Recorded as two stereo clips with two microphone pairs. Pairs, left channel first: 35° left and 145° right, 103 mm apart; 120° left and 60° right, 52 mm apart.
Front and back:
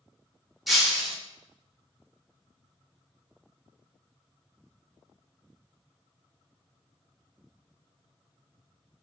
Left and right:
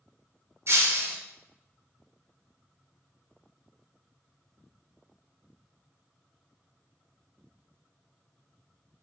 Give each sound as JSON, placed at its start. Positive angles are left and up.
{"t": 0.7, "sound": "breaking glass", "azimuth_deg": -60, "distance_m": 0.6}